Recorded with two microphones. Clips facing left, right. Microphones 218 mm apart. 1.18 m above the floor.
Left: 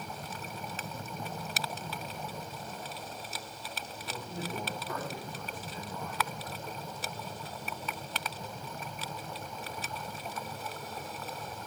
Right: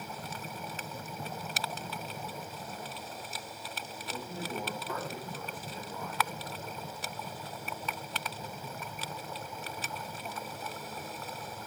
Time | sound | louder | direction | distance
4.0 | a man speaking | even | centre (ahead or behind) | 5.5 m